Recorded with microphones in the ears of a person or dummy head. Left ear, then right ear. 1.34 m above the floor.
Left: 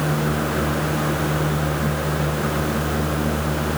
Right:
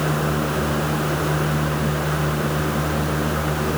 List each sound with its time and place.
Only background noise.